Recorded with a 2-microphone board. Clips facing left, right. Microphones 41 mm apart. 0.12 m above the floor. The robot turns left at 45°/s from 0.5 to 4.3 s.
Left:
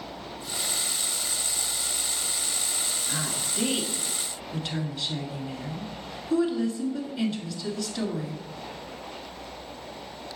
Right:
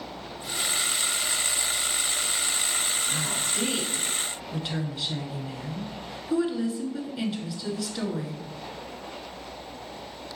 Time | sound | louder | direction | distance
3.1 | a woman speaking | right 2 dB | 45° left | 1.2 m